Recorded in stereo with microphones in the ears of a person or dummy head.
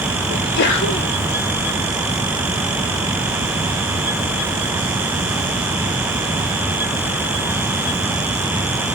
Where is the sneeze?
55° left (ahead or behind), 4 m.